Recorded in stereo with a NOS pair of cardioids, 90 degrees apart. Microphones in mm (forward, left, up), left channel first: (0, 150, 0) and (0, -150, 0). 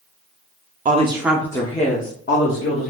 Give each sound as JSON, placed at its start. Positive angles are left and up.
{"t": 0.8, "sound": "a woman speaking", "azimuth_deg": -30, "distance_m": 0.6}